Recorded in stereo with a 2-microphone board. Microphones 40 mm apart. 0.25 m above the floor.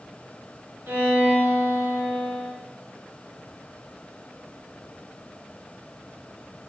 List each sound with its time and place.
0.9 s a violin: 70° right (ahead or behind), 1.5 m